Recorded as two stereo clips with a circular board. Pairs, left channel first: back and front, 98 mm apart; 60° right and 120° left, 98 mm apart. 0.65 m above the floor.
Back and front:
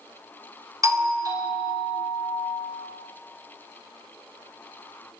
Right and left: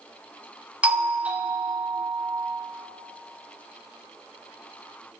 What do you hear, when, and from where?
0.8 s a doorbell: 45° left, 2 m